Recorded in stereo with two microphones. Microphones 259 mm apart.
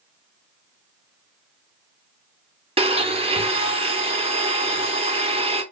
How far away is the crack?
I don't hear a crack.